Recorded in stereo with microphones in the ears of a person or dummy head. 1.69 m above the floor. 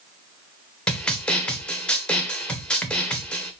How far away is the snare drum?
About 0.8 m.